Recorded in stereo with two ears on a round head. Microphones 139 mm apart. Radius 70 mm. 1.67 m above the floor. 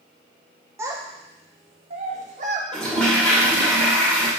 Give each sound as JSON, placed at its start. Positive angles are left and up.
{"t": 0.8, "sound": "a child speaking", "side_deg": -15, "distance_m": 0.8}
{"t": 2.7, "sound": "a toilet flushing", "side_deg": 5, "distance_m": 1.9}